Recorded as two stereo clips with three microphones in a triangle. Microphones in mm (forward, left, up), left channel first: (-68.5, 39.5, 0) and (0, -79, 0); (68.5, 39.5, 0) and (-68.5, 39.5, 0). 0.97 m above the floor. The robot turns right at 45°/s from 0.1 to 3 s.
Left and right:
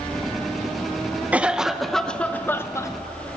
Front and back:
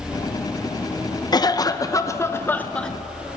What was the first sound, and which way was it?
A cough, 10° left.